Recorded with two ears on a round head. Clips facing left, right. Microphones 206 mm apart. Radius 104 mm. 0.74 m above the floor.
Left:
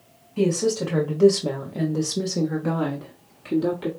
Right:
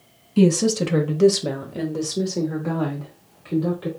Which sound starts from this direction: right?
A woman speaking, at 0.4 s.